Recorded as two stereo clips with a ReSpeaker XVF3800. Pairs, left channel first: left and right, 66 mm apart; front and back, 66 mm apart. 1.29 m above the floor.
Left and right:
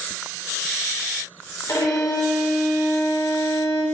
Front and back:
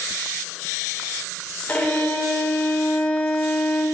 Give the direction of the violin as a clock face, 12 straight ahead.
10 o'clock.